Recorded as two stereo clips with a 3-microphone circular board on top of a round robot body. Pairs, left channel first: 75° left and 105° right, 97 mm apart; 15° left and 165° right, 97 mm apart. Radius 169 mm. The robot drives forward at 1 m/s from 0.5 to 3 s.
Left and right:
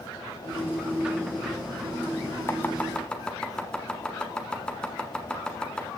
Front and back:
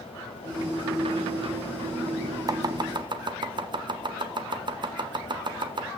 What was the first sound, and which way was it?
Chopping, 145° left.